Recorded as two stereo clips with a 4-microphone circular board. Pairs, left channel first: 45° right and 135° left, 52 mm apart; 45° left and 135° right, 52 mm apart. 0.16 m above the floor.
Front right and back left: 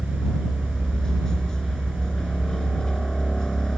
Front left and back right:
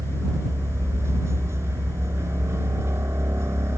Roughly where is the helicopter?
Behind right.